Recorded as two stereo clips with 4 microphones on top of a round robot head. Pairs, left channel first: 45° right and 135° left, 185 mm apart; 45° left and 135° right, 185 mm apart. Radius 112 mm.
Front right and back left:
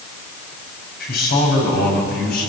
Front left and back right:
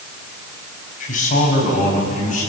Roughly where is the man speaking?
Ahead.